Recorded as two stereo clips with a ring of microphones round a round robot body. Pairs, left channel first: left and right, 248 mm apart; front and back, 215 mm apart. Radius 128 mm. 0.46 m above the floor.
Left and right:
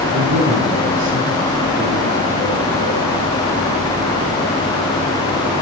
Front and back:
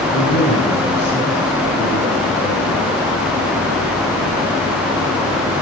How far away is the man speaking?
About 4 m.